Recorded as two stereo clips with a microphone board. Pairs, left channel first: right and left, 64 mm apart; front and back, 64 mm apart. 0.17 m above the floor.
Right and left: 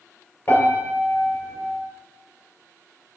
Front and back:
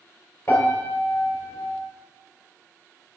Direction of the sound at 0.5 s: 40° right.